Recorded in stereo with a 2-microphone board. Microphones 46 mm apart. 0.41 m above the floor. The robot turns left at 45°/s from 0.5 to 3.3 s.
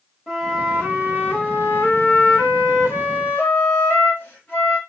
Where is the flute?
175° left, 2.0 m; by 4.8 s 45° left, 2.0 m.